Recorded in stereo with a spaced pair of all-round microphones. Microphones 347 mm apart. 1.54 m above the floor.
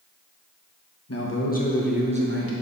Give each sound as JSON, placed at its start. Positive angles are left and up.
{"t": 1.1, "sound": "a man speaking", "side_deg": 45, "distance_m": 1.2}